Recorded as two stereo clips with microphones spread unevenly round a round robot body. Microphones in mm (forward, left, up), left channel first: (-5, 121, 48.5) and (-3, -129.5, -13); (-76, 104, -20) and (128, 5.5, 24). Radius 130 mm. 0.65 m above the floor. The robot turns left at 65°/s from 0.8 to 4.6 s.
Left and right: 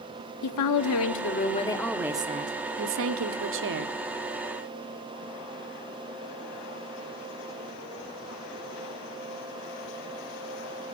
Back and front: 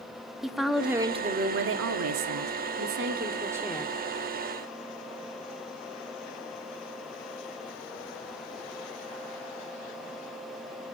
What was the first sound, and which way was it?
A woman speaking, 70° left.